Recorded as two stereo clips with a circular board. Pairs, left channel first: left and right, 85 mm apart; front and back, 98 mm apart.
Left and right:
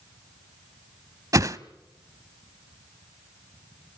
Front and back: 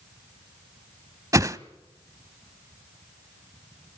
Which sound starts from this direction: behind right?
A whoosh, at 1.3 s.